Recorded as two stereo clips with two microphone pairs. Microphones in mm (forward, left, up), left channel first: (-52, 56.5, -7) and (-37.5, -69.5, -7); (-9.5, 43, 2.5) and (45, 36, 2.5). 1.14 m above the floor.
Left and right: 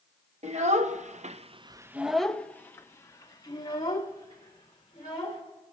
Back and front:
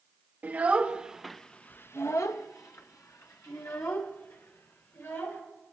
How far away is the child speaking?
About 0.9 m.